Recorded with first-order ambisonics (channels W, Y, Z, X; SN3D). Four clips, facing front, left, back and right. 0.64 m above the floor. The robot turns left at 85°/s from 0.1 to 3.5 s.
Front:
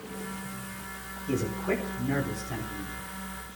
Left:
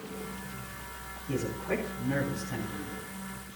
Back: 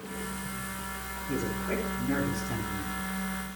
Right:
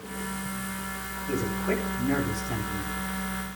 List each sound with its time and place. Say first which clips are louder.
1.3 s a man speaking: right 4 dB, front 3 dB; 25° right, 7 m; by 3.0 s 170° right, 7 m